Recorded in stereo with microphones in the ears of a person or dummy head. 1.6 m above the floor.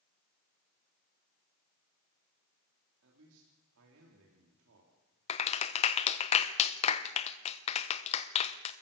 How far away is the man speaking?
About 3 m.